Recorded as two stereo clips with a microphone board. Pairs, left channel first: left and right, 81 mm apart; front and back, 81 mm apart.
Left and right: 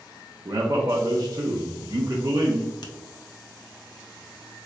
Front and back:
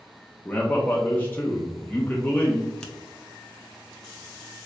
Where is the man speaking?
65° right, 0.5 m.